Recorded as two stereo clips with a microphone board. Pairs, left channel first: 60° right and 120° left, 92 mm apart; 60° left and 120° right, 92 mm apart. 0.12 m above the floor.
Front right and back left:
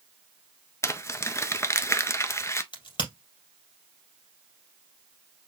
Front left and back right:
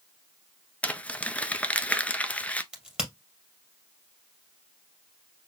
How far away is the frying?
No frying in this recording.